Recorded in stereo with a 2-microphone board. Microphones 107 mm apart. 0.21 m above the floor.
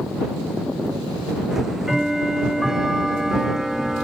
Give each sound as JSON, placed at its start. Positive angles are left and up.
{"t": 1.5, "sound": "ticking", "side_deg": -5}